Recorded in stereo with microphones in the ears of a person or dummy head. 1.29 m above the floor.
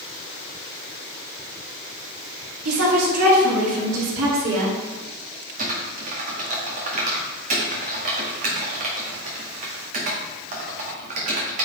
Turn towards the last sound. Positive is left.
turn(degrees=-45)  # may be behind; listen again after turning